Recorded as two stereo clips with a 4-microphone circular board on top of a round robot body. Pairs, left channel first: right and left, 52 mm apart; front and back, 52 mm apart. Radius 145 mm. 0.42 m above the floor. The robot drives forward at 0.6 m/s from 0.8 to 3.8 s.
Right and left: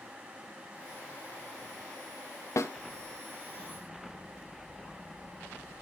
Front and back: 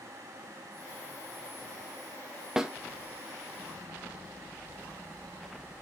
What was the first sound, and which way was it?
A snare drum, 100° right.